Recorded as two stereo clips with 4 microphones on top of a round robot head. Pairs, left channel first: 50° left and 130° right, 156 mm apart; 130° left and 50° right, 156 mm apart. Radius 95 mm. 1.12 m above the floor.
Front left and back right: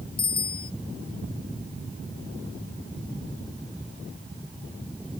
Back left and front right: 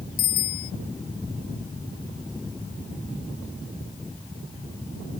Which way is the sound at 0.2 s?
105° left.